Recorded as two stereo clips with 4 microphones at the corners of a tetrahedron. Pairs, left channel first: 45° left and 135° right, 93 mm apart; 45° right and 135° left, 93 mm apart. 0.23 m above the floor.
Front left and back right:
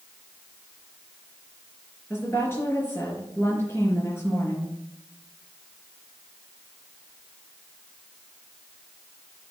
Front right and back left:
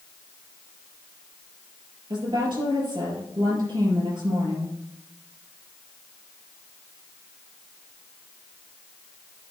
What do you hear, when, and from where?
2.1 s a woman speaking: 110° left, 4 m